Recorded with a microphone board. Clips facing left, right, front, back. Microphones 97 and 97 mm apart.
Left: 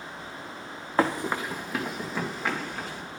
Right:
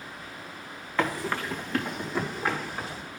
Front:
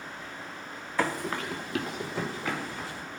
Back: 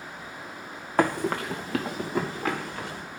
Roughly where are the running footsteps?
Behind left.